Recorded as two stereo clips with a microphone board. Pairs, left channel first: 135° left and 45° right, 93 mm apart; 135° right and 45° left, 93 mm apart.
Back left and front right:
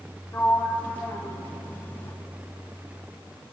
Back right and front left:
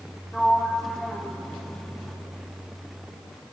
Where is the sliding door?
150° left, 1.2 m.